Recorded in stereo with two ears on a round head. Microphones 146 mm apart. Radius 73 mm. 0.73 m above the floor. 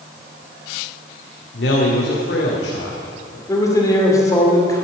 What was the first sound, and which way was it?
A man speaking, 70° left (ahead or behind).